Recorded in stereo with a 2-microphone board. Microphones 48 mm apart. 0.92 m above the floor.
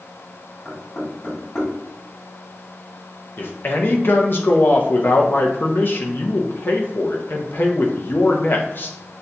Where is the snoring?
I don't hear snoring.